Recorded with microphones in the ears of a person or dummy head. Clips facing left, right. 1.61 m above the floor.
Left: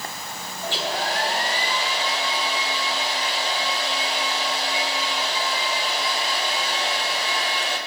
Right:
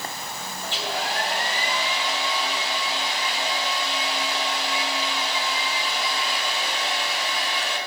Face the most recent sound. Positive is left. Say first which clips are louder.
# left 3 dB
turn(degrees=30)  # may be behind; listen again after turning